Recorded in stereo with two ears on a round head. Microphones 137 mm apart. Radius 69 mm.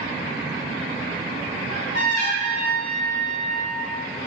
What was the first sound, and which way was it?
A trumpet, 80° left.